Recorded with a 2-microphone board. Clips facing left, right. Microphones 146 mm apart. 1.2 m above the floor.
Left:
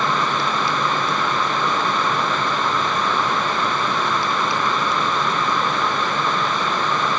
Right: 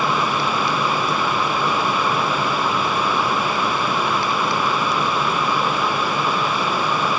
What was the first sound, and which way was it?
Only background noise.